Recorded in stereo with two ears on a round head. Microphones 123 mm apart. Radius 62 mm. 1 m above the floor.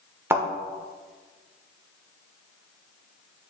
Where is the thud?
15° right (ahead or behind), 0.9 m.